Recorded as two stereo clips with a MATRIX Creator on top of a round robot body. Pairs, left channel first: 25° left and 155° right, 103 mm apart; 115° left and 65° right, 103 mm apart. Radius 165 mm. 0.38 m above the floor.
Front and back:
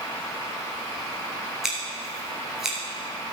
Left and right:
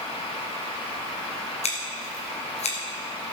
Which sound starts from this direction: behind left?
Scissors, at 1.6 s.